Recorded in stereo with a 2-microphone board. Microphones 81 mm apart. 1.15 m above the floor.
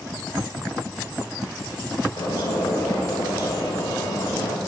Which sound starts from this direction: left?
A bird, at 2.2 s.